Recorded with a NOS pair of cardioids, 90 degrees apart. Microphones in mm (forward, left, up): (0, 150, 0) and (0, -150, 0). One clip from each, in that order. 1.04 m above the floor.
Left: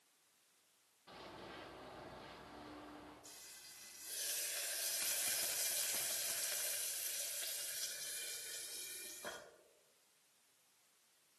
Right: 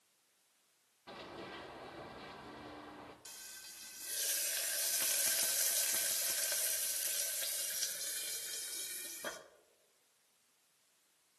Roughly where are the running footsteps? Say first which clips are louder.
Right 5 dB; ahead right.